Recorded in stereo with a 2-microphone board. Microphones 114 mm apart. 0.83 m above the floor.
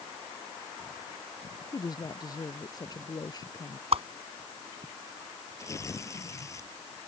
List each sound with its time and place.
1.7 s a woman speaking: 35° left (ahead or behind)
3.9 s a whoosh: 65° right (ahead or behind)
5.6 s tearing paper: 25° left (ahead or behind)